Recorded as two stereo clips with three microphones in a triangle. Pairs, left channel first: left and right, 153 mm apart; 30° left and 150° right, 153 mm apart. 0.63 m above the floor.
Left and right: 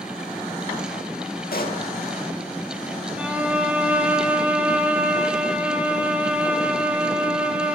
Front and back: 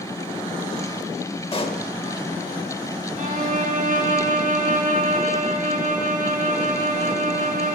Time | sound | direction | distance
1.5 | a pop | 80° left | 0.8 m
3.2 | a violin | 170° right | 0.7 m